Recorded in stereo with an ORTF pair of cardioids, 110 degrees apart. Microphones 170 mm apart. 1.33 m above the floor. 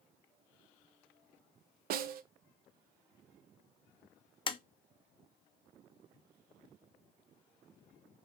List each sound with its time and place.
1.9 s a snare drum: 65° right, 0.6 m
4.5 s tapping: 30° left, 0.6 m